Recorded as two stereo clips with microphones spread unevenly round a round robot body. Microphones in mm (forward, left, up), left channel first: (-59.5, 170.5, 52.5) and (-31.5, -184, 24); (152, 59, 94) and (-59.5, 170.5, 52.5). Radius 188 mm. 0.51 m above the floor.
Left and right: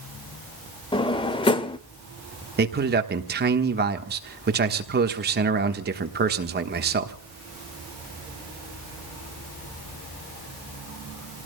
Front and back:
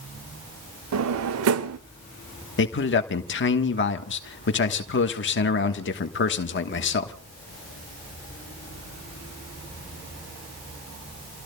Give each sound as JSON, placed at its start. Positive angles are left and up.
{"t": 0.9, "sound": "a drawer", "azimuth_deg": 175, "distance_m": 0.8}
{"t": 2.6, "sound": "a man speaking", "azimuth_deg": -45, "distance_m": 1.3}